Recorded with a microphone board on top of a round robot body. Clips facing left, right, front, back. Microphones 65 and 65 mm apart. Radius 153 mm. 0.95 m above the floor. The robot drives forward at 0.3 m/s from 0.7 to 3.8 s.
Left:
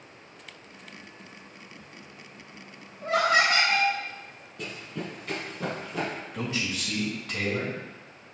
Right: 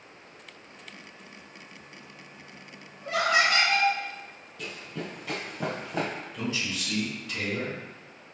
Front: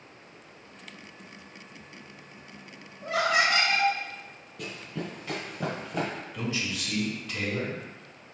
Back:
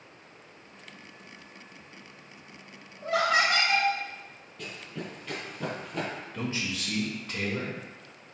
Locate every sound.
3.0 s laughter: 145° left, 2 m
4.6 s running footsteps: 80° left, 1.0 m; by 6.1 s 85° right, 1.8 m
6.3 s a man speaking: 130° left, 1.7 m